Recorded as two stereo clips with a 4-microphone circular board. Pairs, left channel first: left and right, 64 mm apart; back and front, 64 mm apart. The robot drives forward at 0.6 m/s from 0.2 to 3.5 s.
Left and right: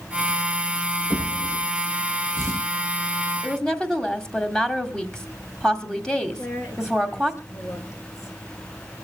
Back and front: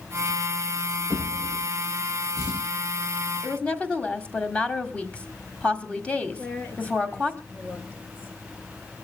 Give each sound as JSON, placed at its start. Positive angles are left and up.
{"t": 1.1, "sound": "a drawer", "azimuth_deg": 140, "distance_m": 9.0}
{"t": 3.4, "sound": "a woman speaking", "azimuth_deg": 145, "distance_m": 1.5}
{"t": 6.3, "sound": "a woman speaking", "azimuth_deg": 120, "distance_m": 3.5}